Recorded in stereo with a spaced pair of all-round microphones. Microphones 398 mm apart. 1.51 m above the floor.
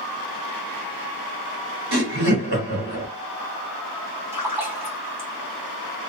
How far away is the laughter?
About 1.0 m.